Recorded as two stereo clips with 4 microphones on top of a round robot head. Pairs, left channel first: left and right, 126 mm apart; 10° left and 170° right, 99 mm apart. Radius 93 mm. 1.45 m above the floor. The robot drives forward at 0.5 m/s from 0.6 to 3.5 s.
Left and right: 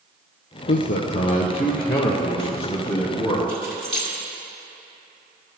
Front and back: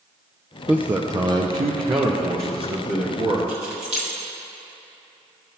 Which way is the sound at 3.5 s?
175° left.